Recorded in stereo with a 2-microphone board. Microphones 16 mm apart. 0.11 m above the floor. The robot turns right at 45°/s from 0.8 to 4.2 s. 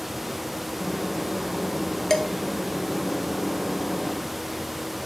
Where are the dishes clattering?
35° left (ahead or behind), 1.4 m; by 2.3 s 40° left (ahead or behind), 1.4 m.